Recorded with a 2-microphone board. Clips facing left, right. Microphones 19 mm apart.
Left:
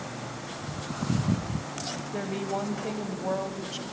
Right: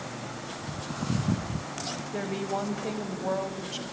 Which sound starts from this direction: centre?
A woman speaking, at 1.9 s.